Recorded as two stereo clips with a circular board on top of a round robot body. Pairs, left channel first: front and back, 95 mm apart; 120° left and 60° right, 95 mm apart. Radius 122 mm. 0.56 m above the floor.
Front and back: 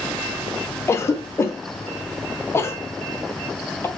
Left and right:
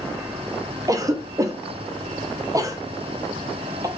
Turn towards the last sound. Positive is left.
turn(degrees=-45)